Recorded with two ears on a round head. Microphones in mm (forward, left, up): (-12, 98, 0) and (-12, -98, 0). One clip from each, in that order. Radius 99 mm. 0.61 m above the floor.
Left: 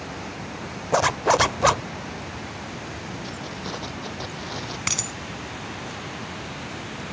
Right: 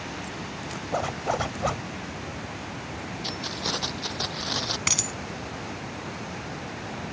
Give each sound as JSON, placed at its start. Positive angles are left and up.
{"t": 0.9, "sound": "a zipper", "side_deg": 60}
{"t": 3.2, "sound": "keys jangling", "side_deg": -50}
{"t": 4.9, "sound": "a dropped coin", "side_deg": -10}